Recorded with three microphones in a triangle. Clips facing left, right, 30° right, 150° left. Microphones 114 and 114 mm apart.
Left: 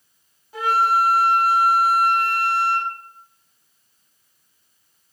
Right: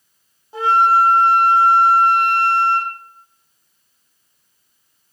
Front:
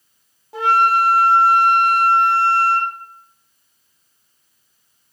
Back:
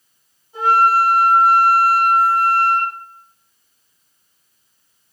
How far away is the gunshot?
No gunshot in this recording.